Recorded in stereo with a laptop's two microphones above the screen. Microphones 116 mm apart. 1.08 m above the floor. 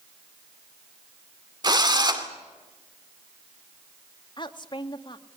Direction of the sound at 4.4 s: 40° left (ahead or behind).